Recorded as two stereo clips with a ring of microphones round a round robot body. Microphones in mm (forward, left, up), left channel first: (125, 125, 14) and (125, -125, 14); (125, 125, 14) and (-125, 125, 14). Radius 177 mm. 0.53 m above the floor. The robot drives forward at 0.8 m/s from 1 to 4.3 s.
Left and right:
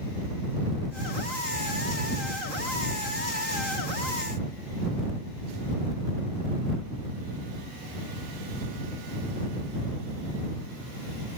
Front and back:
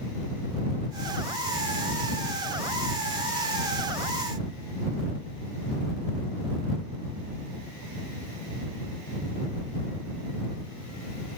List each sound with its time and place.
Only background noise.